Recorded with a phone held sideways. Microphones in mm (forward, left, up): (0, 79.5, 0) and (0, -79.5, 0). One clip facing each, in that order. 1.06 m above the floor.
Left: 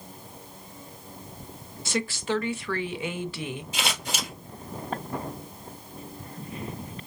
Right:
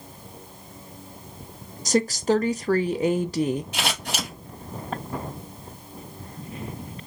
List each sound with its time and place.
1.9 s a woman speaking: 40° right (ahead or behind), 0.5 m
3.7 s scissors: 65° right (ahead or behind), 1.8 m